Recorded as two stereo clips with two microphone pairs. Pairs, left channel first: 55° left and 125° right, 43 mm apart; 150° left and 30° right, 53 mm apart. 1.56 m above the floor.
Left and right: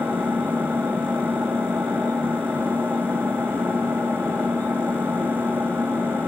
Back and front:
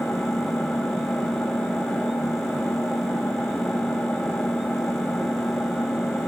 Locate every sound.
0.0 s an engine running: 135° right, 8 m